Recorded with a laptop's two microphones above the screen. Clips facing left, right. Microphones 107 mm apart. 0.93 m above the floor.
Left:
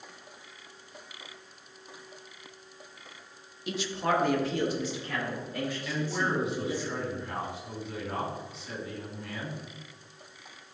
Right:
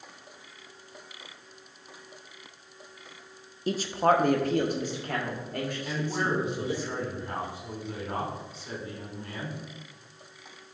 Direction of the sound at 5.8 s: 40° right (ahead or behind).